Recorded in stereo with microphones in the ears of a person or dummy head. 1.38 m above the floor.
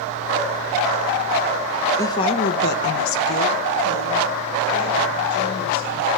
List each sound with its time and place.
2.0 s a woman speaking: 15° left (ahead or behind), 1.2 m; by 6.1 s 70° left (ahead or behind), 5.5 m